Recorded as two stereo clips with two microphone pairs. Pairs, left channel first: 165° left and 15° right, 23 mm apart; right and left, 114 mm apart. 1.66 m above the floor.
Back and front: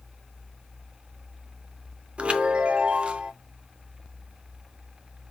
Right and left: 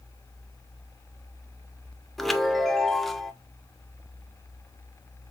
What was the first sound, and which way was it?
A chime, straight ahead.